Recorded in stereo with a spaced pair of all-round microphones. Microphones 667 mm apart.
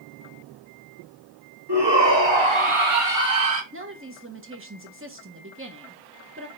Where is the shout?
40° right (ahead or behind), 2.5 m; by 3.6 s 65° right (ahead or behind), 1.8 m.